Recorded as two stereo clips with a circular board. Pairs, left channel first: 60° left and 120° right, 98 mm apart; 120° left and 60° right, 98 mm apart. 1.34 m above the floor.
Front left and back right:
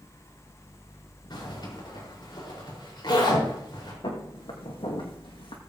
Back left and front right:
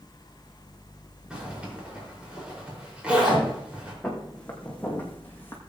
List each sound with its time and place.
1.3 s a zipper: 20° left, 5 m
4.0 s footsteps: 40° left, 3.5 m; by 5.6 s 55° left, 2.5 m